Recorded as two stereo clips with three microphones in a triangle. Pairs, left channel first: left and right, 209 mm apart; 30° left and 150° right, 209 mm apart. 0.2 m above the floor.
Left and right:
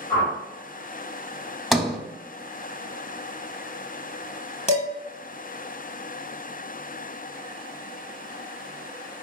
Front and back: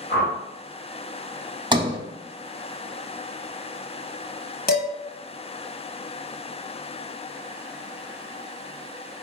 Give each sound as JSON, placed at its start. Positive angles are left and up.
{"t": 0.1, "sound": "a whoosh", "azimuth_deg": 25, "distance_m": 2.5}
{"t": 1.7, "sound": "a sliding door", "azimuth_deg": 180, "distance_m": 0.6}
{"t": 4.7, "sound": "dishes clattering", "azimuth_deg": 45, "distance_m": 1.1}